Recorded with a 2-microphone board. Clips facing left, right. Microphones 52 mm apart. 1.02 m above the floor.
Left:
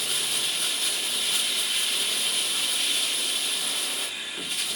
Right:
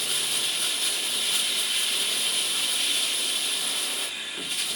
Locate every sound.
0.0 s running water: 5° left (ahead or behind), 1.2 m